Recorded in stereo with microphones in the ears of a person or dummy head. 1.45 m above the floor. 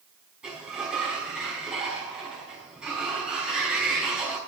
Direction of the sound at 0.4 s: 5° right (ahead or behind).